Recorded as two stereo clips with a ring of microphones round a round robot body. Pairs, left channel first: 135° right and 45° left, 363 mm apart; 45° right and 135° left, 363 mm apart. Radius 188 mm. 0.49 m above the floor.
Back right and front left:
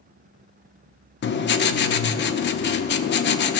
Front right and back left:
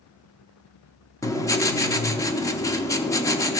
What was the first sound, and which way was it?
Writing, 120° right.